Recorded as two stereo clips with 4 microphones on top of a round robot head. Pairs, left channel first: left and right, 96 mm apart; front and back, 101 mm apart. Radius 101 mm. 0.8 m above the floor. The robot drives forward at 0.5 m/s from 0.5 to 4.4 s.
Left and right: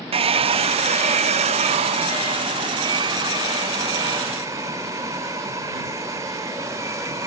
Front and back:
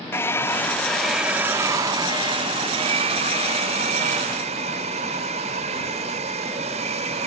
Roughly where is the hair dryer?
Right.